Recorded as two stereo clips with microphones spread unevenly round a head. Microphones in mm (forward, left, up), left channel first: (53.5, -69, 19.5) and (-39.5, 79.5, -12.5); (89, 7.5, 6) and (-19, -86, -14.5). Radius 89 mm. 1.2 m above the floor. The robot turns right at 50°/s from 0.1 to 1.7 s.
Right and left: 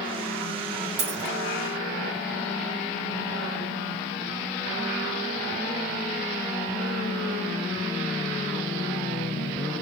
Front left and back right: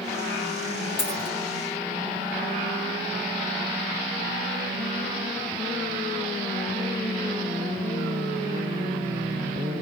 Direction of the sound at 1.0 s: 70° left.